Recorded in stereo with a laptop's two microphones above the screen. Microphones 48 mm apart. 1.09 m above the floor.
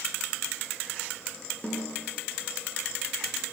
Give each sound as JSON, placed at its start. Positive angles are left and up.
{"t": 1.6, "sound": "a snare drum", "side_deg": 20, "distance_m": 9.5}